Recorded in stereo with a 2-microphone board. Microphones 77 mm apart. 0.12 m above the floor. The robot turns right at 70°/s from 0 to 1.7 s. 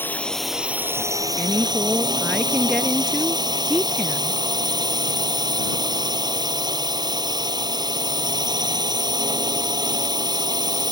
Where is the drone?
150° left; by 10.9 s 90° right.